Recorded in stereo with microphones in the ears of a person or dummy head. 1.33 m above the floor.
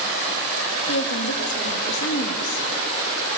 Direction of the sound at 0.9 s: 65° left (ahead or behind).